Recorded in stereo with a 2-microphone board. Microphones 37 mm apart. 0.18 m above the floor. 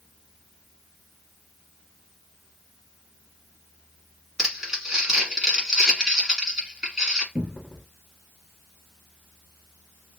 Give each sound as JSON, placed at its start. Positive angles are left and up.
{"t": 4.4, "sound": "crumpling", "side_deg": -10, "distance_m": 1.3}
{"t": 7.3, "sound": "a cupboard door", "side_deg": -30, "distance_m": 1.1}